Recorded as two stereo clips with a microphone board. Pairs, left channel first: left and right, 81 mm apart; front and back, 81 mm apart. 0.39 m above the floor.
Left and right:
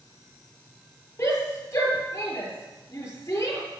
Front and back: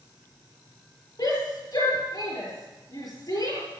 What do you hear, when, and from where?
1.2 s a shout: 40° left, 7 m